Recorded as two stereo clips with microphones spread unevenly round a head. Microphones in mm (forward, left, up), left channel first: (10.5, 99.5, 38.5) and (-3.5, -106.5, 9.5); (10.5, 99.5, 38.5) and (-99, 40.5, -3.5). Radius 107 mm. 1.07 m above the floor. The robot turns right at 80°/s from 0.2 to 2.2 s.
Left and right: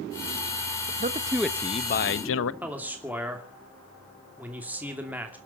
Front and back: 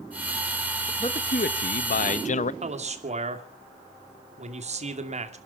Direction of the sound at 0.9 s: 50° right.